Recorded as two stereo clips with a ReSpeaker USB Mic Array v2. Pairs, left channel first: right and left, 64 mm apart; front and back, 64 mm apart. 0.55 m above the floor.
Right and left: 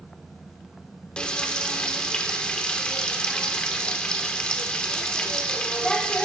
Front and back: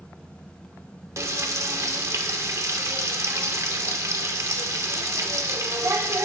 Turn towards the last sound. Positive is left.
turn(degrees=-160)